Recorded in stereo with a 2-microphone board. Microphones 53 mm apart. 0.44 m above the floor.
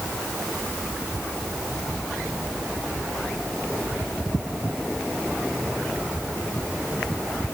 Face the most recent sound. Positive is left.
No sound to turn to.